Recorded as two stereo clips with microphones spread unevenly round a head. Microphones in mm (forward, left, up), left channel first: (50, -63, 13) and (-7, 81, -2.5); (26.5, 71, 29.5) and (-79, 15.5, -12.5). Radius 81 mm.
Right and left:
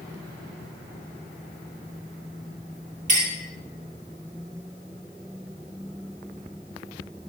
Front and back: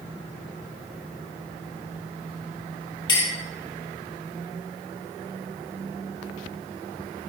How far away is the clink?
About 3 m.